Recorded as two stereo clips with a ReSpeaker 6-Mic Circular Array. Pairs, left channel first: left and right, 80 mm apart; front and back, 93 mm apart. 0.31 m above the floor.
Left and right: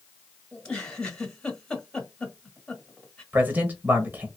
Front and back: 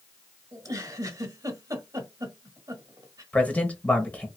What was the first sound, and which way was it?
A giggle, 165° left.